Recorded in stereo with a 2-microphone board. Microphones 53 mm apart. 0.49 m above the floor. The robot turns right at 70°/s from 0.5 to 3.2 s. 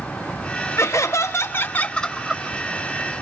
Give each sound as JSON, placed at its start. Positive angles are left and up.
{"t": 0.8, "sound": "laughter", "azimuth_deg": 75, "distance_m": 1.6}